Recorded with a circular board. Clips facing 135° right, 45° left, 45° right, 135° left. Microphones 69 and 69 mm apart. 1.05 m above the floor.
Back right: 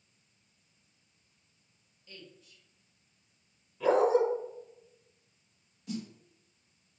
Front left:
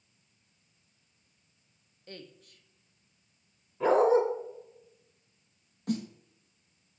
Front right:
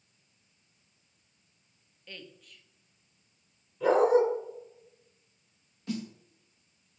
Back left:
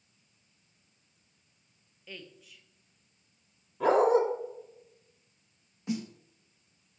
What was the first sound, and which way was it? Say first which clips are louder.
A woman speaking: front left 5 dB, back left 1 dB; 50° left.